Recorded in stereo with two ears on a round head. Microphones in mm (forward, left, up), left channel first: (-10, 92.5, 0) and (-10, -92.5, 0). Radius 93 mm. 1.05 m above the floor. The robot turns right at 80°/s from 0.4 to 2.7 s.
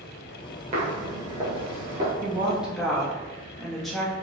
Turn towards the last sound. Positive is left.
turn(degrees=0)